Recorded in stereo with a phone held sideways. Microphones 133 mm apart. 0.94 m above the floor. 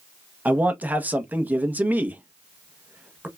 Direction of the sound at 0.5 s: 15° right (ahead or behind).